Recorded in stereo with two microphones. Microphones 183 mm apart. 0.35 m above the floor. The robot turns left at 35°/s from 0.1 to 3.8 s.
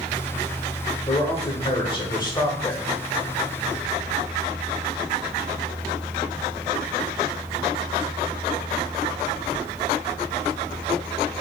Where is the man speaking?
85° left, 0.9 m; by 2.9 s 20° left, 0.9 m.